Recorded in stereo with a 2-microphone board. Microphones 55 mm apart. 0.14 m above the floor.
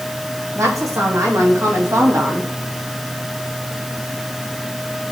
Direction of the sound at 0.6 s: 80° right.